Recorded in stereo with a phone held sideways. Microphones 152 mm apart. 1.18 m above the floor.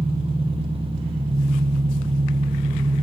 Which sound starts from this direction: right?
An engine running, at 0.0 s.